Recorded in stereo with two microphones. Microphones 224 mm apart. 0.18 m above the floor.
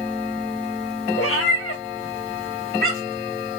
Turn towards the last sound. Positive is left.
turn(degrees=65)  # may be behind; listen again after turning